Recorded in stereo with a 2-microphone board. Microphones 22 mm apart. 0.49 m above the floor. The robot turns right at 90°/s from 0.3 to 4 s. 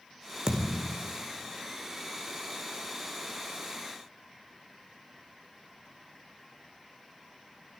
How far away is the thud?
About 1.7 m.